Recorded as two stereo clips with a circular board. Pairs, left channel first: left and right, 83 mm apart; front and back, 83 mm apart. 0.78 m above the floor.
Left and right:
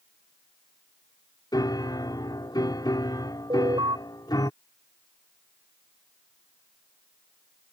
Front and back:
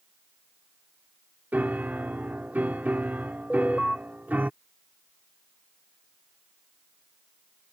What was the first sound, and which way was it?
A piano, 115° left.